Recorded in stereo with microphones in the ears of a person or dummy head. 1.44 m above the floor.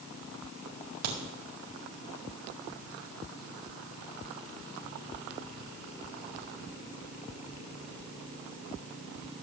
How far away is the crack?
About 1.7 m.